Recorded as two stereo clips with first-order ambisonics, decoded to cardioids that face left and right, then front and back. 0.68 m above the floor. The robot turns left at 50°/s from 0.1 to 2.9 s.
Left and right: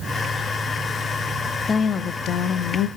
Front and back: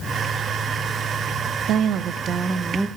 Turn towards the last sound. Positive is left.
turn(degrees=95)